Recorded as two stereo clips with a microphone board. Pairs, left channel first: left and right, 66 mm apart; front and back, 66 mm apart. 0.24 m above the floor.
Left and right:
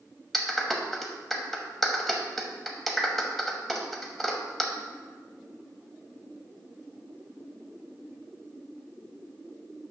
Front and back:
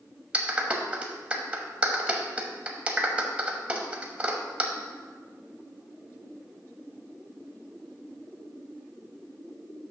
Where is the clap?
175° left, 1.0 m.